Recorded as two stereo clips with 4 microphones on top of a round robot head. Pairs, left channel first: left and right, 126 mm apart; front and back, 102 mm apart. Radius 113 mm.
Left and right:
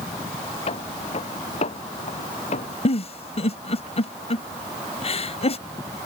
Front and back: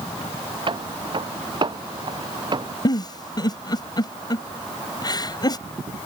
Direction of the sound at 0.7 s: 140° left.